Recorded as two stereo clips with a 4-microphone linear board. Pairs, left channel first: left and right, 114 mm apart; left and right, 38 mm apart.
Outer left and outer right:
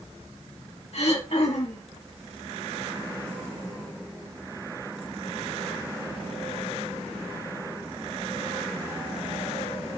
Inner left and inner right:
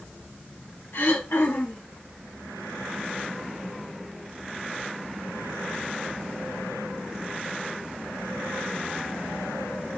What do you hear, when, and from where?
0.9 s throat clearing: 70° left (ahead or behind), 4 m